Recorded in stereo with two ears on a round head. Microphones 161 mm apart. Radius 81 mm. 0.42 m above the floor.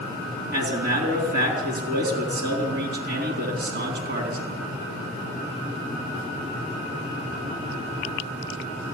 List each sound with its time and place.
0.5 s a man speaking: 55° right (ahead or behind), 4 m